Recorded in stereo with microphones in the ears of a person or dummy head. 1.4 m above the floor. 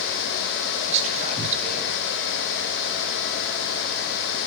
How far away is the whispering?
About 1.0 m.